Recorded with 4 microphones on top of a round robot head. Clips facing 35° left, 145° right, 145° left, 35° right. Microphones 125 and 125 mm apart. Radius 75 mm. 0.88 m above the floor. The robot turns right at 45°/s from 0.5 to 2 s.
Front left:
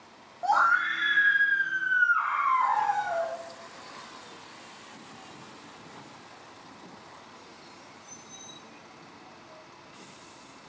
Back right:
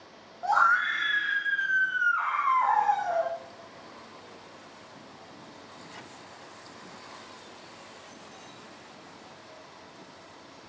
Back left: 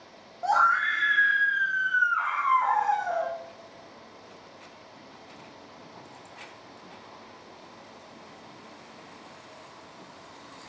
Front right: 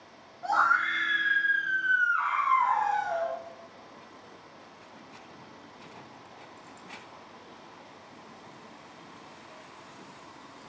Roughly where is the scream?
Left.